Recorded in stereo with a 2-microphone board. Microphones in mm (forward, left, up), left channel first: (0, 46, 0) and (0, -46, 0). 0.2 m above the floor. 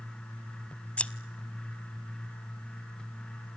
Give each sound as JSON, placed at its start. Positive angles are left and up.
{"t": 1.0, "sound": "scissors", "side_deg": 15, "distance_m": 0.7}